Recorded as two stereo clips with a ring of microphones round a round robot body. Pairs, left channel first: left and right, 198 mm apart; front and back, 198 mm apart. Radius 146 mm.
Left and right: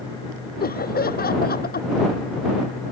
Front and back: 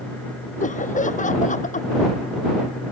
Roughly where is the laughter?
Ahead left.